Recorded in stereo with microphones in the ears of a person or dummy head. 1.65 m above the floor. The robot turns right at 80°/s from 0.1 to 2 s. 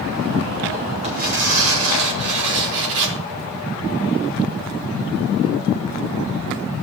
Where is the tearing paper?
140° right, 3 m; by 3.2 s 65° right, 3 m.